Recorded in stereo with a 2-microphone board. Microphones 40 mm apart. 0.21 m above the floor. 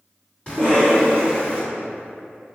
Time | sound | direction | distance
0.5 | a cough | 25° left (ahead or behind) | 1.7 m